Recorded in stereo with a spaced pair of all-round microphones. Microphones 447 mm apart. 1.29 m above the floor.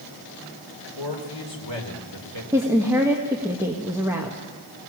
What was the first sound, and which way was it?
A man speaking, 70° left (ahead or behind).